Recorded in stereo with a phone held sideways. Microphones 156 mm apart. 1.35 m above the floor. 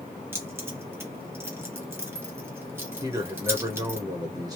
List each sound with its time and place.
0.3 s keys jangling: 15° right (ahead or behind), 1.0 m
3.0 s a man speaking: 25° right (ahead or behind), 1.0 m